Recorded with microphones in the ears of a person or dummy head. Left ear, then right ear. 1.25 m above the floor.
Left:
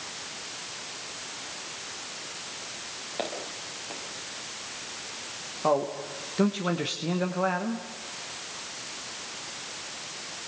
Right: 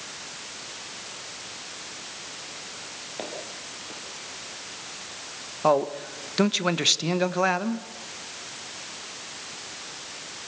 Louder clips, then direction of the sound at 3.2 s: Left 3 dB; 10° left (ahead or behind).